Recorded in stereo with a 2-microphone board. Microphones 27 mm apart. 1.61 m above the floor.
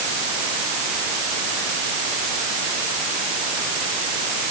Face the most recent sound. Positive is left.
No sound to turn to.